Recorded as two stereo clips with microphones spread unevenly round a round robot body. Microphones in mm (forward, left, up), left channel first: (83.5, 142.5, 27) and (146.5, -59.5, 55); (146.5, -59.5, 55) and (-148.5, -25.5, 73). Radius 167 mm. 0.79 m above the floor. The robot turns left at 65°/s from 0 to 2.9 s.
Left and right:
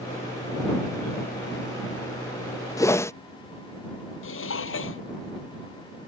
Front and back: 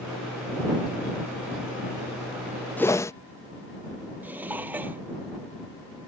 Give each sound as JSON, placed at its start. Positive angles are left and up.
{"t": 2.8, "sound": "a whoosh", "azimuth_deg": 65}
{"t": 4.2, "sound": "dishes clattering", "azimuth_deg": 90}